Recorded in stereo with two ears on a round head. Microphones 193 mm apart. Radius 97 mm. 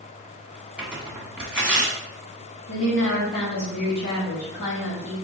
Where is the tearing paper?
5° right (ahead or behind), 1.2 m.